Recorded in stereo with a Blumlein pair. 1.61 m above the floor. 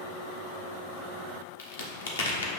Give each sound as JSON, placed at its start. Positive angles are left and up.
{"t": 1.6, "sound": "a crack", "azimuth_deg": 70, "distance_m": 1.4}